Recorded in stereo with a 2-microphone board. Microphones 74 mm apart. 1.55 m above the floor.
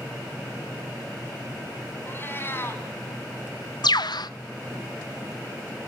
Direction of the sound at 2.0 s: 30° left (ahead or behind).